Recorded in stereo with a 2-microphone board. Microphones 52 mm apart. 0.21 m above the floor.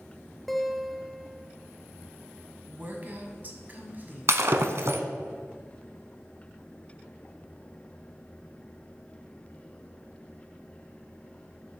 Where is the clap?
No clap in this recording.